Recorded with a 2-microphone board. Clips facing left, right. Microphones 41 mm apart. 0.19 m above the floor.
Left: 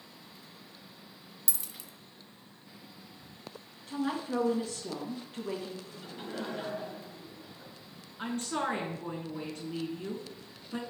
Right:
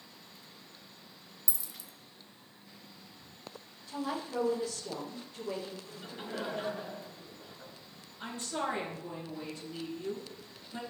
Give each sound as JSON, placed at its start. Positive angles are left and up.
{"t": 1.5, "sound": "a dropped coin", "side_deg": 60, "distance_m": 0.6}
{"t": 3.9, "sound": "a woman speaking", "side_deg": 60, "distance_m": 3.0}
{"t": 5.9, "sound": "laughter", "side_deg": -10, "distance_m": 2.0}
{"t": 8.2, "sound": "a woman speaking", "side_deg": 60, "distance_m": 2.5}